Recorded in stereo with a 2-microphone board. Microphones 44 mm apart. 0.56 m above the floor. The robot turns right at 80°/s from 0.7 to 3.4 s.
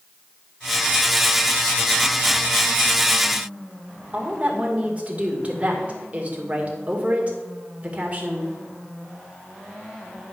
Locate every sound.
4.1 s a woman speaking: 30° right (ahead or behind), 1.9 m